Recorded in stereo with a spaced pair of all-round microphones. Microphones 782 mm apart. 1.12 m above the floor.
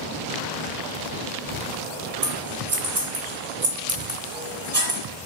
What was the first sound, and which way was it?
Scissors, 45° right (ahead or behind).